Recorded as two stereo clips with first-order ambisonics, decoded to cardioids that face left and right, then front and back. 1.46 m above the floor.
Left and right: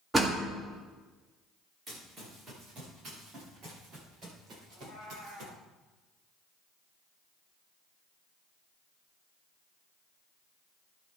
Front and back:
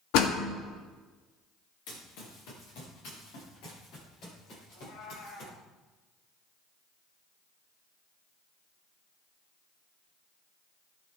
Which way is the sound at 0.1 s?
10° right.